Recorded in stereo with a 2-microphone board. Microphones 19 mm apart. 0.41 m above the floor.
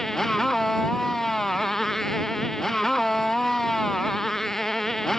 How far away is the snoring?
No snoring in this recording.